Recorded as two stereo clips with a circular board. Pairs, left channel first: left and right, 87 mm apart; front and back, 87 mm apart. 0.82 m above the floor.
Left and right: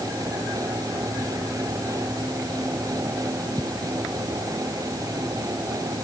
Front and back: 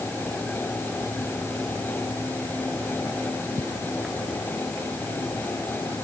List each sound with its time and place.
Only background noise.